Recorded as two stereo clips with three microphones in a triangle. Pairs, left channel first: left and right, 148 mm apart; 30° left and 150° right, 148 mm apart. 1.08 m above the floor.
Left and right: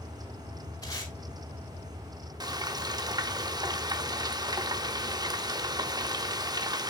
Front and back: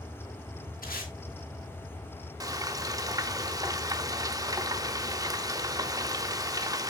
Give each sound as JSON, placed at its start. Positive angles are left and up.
{"t": 0.8, "sound": "tape being pulled", "azimuth_deg": 25, "distance_m": 5.0}
{"t": 2.4, "sound": "frying", "azimuth_deg": -115, "distance_m": 0.7}